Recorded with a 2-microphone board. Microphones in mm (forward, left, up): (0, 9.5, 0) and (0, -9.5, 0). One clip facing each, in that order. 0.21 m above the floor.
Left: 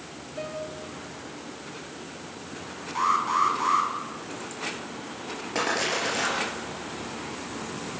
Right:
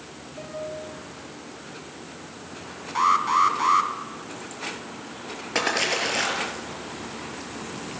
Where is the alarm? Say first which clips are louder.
Right 4 dB; 20° right (ahead or behind), 2.5 m.